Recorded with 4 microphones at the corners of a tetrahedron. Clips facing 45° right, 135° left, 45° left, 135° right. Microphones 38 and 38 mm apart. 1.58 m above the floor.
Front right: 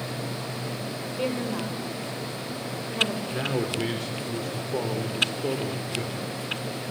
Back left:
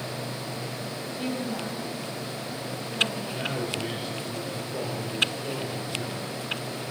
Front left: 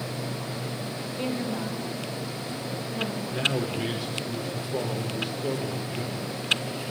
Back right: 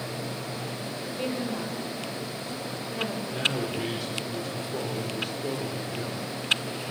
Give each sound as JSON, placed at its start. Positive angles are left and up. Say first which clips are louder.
{"t": 1.0, "sound": "a woman speaking", "louder": "front right 3 dB, even", "azimuth_deg": -50, "distance_m": 6.5}
{"t": 3.3, "sound": "a man speaking", "louder": "front right 3 dB, front left 2 dB", "azimuth_deg": -40, "distance_m": 5.5}